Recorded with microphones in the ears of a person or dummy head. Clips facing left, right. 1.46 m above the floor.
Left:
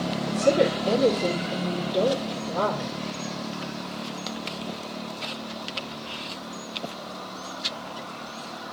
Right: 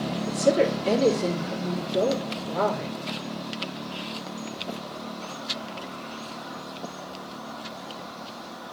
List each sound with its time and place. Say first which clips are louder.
0.3 s a woman speaking: even; 35° right (ahead or behind), 3 m